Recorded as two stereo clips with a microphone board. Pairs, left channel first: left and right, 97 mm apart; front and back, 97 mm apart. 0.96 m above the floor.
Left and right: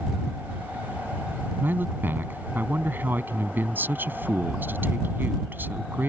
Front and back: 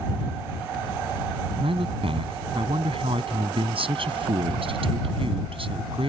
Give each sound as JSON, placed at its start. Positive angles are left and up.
{"t": 1.6, "sound": "a man speaking", "azimuth_deg": -160}